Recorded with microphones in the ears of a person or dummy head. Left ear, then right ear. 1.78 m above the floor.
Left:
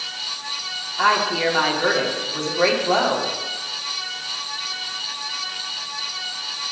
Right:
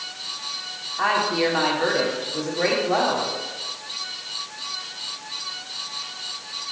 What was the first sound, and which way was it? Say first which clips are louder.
A woman speaking: left 2 dB; 10° left (ahead or behind).